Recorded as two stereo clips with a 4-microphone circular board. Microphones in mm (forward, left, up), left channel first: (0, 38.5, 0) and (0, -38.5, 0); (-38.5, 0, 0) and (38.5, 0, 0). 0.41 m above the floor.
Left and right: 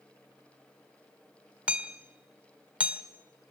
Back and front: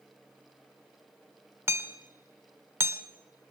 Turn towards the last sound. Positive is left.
turn(degrees=-30)